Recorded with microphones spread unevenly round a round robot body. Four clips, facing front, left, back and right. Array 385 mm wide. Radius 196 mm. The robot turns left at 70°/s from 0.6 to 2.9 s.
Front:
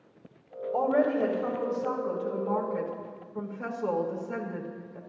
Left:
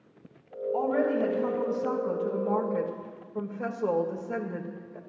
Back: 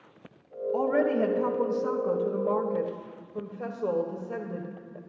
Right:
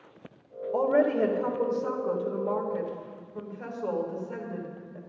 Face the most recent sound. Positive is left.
turn(degrees=130)